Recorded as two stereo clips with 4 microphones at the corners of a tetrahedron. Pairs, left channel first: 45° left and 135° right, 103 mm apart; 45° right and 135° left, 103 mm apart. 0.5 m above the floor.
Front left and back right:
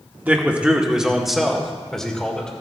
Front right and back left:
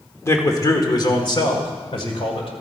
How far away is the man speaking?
About 1.4 m.